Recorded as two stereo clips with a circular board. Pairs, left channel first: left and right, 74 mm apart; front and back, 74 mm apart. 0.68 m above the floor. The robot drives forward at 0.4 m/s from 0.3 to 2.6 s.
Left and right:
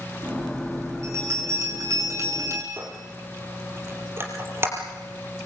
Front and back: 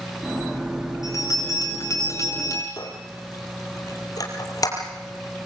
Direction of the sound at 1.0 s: 40° right.